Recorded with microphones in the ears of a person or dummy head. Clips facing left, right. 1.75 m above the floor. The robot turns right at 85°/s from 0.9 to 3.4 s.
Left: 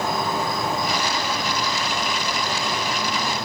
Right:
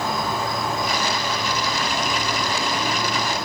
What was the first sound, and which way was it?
An insect, 170° left.